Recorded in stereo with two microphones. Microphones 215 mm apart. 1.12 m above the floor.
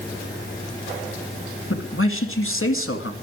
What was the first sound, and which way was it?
A man speaking, 75° left (ahead or behind).